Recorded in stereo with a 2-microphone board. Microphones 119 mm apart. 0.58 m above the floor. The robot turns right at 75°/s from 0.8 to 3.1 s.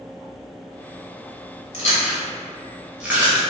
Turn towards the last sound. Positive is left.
turn(degrees=-15)  # may be behind; listen again after turning